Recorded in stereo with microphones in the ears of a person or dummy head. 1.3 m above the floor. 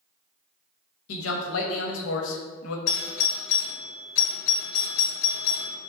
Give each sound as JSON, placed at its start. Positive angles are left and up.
{"t": 1.1, "sound": "a man speaking", "side_deg": 70, "distance_m": 0.6}
{"t": 2.9, "sound": "a doorbell", "side_deg": 40, "distance_m": 1.0}